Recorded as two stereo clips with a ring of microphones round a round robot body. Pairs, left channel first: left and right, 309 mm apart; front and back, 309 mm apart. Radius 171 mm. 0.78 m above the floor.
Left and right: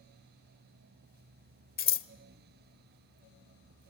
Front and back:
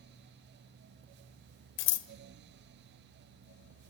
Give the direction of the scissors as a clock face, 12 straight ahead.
11 o'clock.